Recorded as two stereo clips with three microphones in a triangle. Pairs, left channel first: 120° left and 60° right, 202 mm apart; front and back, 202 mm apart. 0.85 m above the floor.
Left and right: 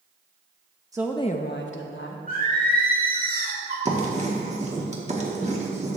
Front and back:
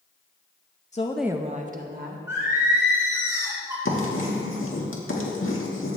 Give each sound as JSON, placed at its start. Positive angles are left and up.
{"t": 0.9, "sound": "a woman speaking", "azimuth_deg": -5, "distance_m": 0.5}
{"t": 2.3, "sound": "singing", "azimuth_deg": -105, "distance_m": 2.5}
{"t": 3.9, "sound": "writing", "azimuth_deg": -5, "distance_m": 1.4}